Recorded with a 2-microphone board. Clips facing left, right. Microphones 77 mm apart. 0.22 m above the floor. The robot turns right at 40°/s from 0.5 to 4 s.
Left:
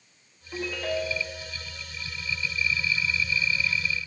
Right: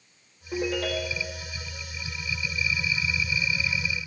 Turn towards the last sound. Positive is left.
turn(degrees=20)